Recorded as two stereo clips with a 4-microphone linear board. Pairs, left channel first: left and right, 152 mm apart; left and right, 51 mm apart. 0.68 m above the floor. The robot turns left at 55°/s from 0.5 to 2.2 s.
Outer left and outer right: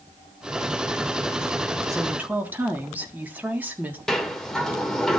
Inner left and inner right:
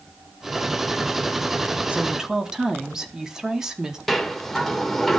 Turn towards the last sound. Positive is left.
turn(degrees=5)  # may be behind; listen again after turning